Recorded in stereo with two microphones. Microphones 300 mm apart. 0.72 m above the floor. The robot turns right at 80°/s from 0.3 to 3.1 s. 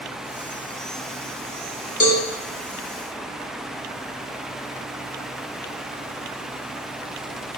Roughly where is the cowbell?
Left.